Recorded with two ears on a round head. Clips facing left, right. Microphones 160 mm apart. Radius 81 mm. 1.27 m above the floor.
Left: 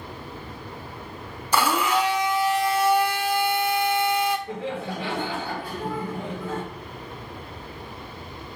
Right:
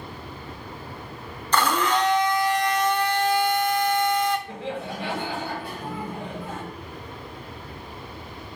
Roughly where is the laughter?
Left.